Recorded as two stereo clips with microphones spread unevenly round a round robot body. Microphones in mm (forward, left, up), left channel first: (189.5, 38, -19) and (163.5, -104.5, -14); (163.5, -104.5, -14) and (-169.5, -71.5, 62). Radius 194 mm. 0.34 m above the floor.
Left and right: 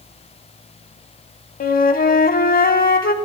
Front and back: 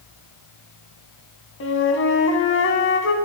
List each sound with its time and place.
1.6 s a flute: 55° left, 0.5 m